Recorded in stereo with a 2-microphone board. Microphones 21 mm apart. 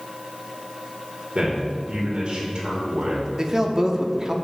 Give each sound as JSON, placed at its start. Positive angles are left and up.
{"t": 1.4, "sound": "a man speaking", "side_deg": -60, "distance_m": 2.5}
{"t": 3.4, "sound": "a man speaking", "side_deg": -35, "distance_m": 0.9}